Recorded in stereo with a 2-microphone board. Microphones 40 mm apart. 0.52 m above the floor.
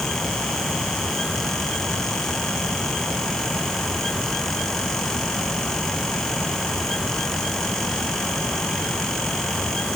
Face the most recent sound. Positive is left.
No sound to turn to.